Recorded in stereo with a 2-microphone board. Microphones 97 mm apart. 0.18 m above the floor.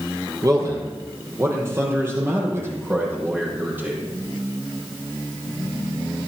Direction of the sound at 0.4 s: 35° right (ahead or behind).